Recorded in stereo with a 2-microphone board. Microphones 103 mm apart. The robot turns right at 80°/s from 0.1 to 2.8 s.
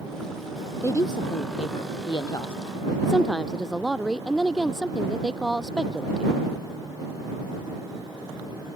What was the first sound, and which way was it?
A woman speaking, 25° left.